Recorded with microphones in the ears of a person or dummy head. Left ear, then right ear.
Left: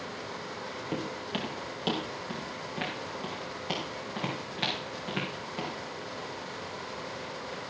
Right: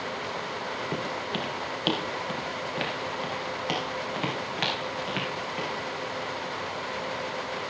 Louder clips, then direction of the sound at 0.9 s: Right 4 dB; centre (ahead or behind).